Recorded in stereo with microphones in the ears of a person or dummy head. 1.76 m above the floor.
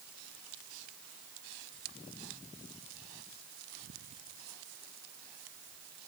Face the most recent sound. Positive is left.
No sound to turn to.